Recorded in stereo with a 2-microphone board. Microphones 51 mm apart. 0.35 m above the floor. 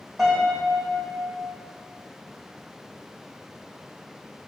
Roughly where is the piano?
Centre.